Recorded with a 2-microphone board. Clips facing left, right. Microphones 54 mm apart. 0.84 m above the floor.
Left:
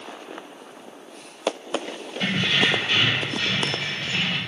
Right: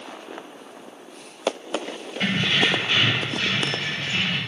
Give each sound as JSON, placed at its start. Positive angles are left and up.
{"t": 2.2, "sound": "keys jangling", "side_deg": -30, "distance_m": 0.9}